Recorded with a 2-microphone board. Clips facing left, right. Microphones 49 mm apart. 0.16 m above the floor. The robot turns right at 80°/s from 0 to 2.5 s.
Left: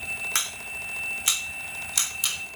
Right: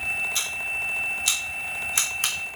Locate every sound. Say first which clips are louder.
0.3 s scissors: right 4 dB; 80° left, 4.5 m; by 2.6 s 70° right (ahead or behind), 4.5 m